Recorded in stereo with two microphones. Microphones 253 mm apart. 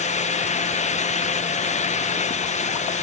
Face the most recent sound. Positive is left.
No sound to turn to.